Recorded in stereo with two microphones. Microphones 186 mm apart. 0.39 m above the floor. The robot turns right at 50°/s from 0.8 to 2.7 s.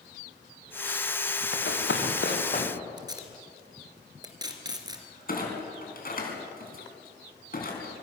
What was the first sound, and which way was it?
Running footsteps, 65° left (ahead or behind).